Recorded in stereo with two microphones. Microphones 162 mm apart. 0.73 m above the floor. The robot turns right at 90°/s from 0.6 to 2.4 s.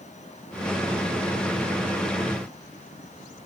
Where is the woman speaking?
No woman speaking in this recording.